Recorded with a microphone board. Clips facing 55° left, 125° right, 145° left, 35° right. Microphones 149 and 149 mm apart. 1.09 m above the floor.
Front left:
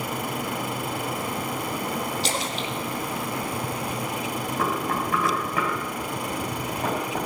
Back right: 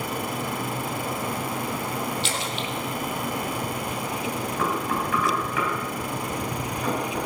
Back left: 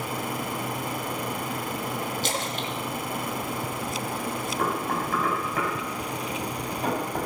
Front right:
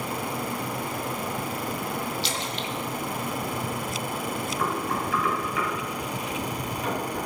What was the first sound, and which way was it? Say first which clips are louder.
A splash: front left 1 dB, back left 1 dB; 105° left.